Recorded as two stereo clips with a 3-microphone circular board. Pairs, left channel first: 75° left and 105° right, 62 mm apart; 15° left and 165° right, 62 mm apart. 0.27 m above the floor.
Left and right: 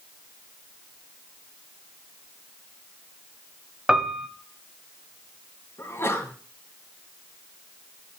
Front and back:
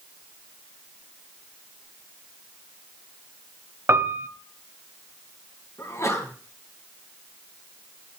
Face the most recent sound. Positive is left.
turn(degrees=40)